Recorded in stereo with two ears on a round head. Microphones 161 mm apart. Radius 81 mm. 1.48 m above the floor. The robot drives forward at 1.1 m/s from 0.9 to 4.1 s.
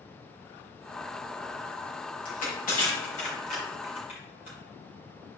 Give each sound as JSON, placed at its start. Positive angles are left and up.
{"t": 2.2, "sound": "crushing", "side_deg": 55, "distance_m": 3.0}